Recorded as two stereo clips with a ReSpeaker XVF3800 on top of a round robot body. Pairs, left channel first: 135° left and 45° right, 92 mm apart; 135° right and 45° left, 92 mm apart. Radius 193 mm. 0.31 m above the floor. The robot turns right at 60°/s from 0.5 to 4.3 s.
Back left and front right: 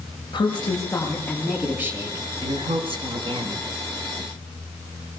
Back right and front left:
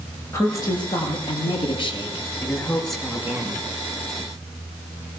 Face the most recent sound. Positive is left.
turn(degrees=35)